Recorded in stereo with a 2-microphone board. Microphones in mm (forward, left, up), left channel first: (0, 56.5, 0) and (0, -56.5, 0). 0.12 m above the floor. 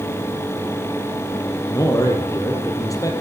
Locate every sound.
1.7 s a man speaking: 30° left (ahead or behind), 3.5 m